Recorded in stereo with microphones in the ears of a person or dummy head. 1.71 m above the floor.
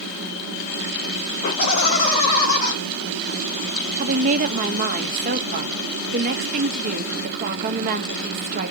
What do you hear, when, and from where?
1.4 s laughter: 50° left (ahead or behind), 3 m
4.0 s a woman speaking: 45° right (ahead or behind), 0.9 m